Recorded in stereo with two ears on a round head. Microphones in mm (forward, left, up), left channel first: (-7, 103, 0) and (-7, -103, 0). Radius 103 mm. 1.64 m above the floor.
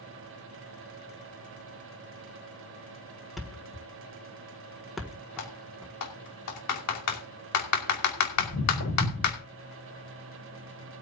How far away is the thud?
About 1.8 m.